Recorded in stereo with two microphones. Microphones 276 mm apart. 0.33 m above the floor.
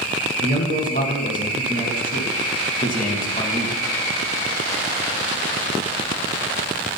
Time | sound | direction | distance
0.4 | a man speaking | 30° left (ahead or behind) | 2.5 m